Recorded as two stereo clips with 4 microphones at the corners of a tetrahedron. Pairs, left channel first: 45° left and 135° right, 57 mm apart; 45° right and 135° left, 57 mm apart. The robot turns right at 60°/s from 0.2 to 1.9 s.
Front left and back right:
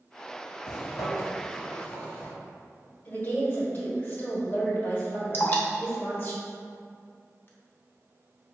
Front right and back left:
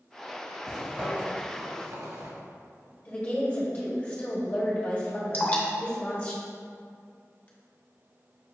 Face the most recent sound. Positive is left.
turn(degrees=10)